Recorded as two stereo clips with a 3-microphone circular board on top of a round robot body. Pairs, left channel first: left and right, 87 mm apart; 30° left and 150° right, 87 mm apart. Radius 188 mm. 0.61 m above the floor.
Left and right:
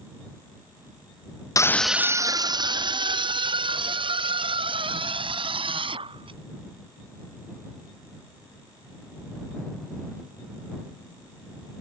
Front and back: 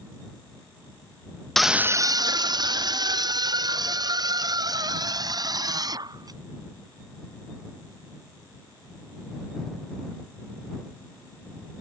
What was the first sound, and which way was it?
A scream, 115° left.